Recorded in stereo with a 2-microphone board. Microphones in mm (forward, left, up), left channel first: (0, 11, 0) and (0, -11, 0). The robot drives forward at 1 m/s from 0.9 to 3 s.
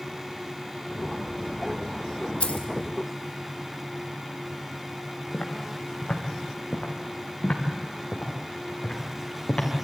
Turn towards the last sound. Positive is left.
turn(degrees=50)  # may be behind; listen again after turning